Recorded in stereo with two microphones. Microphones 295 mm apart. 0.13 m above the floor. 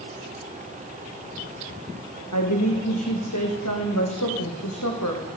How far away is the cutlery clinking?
No cutlery clinking in this recording.